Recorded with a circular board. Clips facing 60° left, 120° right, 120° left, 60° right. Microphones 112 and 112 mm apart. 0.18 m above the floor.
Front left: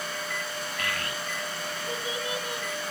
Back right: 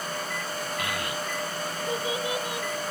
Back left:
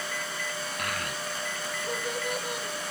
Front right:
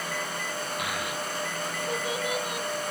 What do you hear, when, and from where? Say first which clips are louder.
0.8 s a child speaking: back right 2 dB, front right 2 dB; 140° right, 0.7 m